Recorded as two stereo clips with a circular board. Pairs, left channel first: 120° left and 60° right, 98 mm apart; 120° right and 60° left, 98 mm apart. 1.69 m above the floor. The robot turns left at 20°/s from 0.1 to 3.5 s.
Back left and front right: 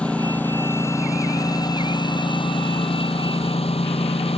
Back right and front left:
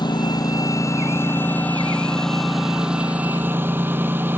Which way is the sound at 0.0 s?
160° right.